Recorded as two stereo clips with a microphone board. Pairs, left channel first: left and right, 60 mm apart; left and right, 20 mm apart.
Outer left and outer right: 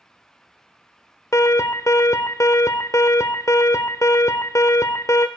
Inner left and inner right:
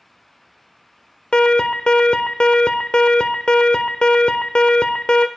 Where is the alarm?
70° left (ahead or behind), 0.6 m.